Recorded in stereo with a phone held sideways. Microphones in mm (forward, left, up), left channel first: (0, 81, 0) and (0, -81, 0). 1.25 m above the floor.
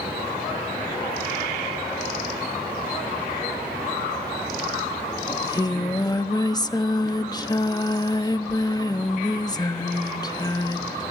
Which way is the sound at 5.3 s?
25° left (ahead or behind).